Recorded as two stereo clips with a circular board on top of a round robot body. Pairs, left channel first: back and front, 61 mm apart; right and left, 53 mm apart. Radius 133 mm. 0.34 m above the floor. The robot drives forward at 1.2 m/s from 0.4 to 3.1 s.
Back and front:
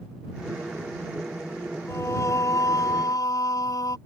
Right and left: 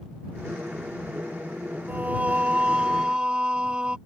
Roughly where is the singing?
Behind left.